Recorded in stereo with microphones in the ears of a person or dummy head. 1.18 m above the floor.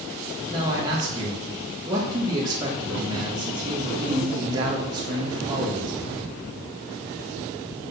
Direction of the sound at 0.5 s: 20° right (ahead or behind).